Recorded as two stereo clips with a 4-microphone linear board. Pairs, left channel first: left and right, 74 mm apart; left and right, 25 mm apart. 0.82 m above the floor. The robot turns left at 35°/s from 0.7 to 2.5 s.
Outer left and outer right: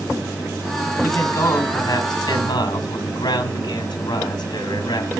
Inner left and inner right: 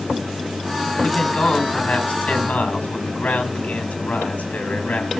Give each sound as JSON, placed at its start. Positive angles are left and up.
{"t": 1.0, "sound": "a man speaking", "azimuth_deg": 155, "distance_m": 2.5}